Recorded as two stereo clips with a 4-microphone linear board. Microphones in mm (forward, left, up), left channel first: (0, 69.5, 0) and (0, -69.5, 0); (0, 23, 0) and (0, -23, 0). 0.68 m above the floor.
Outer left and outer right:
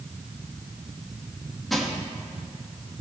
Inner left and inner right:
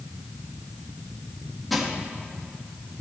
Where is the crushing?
Centre (ahead or behind), 1.3 m.